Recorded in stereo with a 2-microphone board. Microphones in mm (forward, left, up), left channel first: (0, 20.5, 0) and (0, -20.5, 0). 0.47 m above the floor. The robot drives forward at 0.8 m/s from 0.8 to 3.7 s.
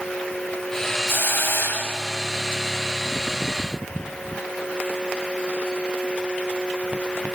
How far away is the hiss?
About 3.5 m.